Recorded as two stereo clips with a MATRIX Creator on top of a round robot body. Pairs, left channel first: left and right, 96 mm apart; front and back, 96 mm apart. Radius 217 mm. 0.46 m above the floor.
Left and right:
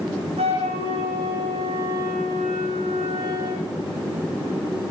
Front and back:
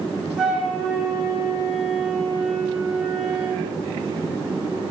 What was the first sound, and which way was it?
A flute, 95° right.